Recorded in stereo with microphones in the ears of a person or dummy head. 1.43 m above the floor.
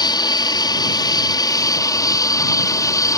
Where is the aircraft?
20° left (ahead or behind); by 3.2 s 15° left (ahead or behind).